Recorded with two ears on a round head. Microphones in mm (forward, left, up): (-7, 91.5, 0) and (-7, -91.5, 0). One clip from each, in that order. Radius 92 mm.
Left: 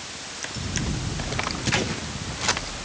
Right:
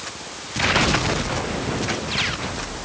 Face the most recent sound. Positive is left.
No sound to turn to.